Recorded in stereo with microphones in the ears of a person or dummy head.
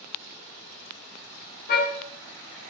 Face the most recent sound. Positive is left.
turn(degrees=45)  # may be behind; listen again after turning